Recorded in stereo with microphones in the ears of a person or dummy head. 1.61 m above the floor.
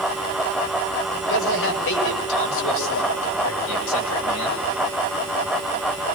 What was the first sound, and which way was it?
A man speaking, 65° left (ahead or behind).